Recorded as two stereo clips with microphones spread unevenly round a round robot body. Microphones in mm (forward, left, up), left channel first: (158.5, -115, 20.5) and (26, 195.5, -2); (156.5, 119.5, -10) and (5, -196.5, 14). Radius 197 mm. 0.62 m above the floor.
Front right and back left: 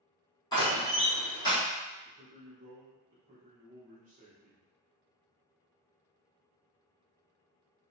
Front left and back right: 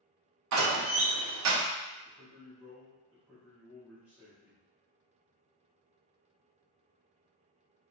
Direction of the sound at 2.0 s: 155° left.